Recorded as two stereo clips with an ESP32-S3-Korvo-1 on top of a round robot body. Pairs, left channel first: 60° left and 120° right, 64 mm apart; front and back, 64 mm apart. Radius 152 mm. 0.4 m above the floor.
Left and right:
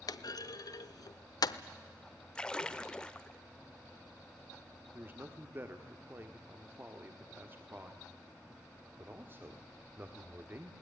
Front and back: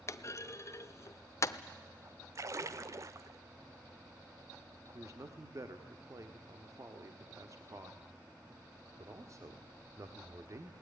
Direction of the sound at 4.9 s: 165° right.